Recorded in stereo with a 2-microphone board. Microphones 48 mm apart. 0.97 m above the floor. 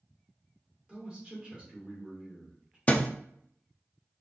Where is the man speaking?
20° right (ahead or behind), 2.5 m.